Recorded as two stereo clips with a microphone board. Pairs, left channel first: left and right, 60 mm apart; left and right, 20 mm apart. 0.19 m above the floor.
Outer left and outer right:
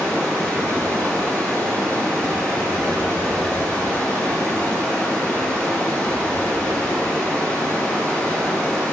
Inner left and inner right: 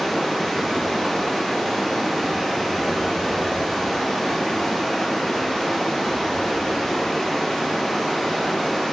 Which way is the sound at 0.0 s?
20° left (ahead or behind).